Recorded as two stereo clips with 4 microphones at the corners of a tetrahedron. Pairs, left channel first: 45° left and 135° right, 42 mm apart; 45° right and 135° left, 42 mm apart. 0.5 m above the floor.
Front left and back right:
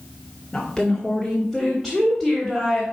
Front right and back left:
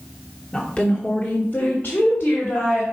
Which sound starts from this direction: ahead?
A woman speaking, at 0.5 s.